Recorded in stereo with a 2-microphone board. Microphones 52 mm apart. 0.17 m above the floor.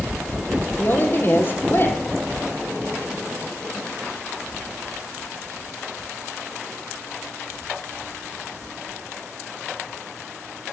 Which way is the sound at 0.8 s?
40° left (ahead or behind).